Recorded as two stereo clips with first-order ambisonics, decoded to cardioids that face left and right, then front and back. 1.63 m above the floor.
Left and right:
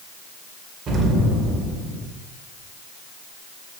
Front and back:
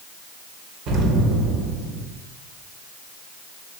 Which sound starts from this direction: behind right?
An explosion, at 0.9 s.